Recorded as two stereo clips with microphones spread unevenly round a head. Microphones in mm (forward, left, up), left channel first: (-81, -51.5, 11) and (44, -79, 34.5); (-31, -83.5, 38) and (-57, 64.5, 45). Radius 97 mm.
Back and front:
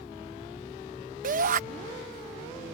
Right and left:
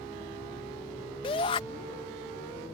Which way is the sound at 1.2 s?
20° right.